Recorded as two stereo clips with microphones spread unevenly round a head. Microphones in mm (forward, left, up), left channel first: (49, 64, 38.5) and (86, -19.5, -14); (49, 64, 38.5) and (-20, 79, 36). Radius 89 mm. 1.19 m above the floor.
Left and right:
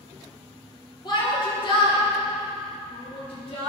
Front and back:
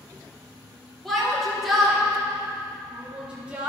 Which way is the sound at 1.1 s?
75° left.